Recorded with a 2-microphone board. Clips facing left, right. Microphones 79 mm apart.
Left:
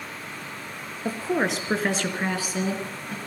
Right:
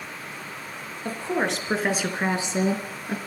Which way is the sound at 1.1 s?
15° left (ahead or behind).